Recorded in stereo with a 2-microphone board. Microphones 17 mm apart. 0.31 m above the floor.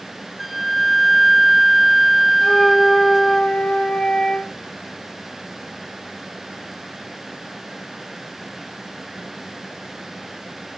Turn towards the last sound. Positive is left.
turn(degrees=65)  # may be behind; listen again after turning